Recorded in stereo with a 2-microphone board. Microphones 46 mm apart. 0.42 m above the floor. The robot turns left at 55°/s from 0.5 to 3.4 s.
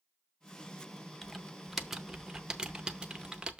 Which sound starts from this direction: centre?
Typing on a keyboard, at 1.2 s.